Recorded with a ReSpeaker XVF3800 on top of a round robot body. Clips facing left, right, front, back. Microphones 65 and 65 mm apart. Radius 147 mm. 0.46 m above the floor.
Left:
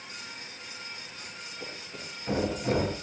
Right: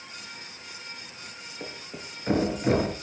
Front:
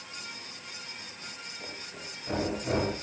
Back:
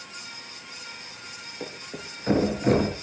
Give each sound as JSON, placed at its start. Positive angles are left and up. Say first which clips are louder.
{"t": 1.6, "sound": "a thud", "louder": "right 3 dB, back 8 dB", "azimuth_deg": -145, "distance_m": 5.0}